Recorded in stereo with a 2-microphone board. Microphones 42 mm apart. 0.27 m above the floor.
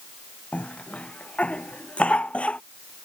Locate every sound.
0.5 s a cough: 30° left (ahead or behind)